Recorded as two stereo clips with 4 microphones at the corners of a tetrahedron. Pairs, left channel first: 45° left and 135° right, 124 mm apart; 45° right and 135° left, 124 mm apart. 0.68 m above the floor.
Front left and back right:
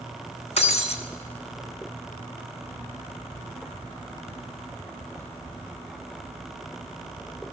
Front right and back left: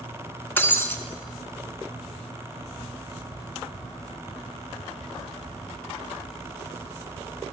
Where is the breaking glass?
25° left, 1.4 m.